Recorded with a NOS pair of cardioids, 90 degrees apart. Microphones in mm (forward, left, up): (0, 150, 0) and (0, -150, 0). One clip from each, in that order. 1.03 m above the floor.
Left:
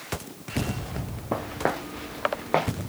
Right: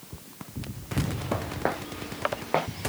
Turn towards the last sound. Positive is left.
turn(degrees=20)